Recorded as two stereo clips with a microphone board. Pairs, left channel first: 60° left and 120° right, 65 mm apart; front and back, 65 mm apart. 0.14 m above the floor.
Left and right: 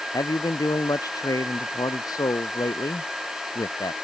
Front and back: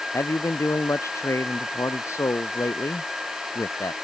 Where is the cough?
I don't hear a cough.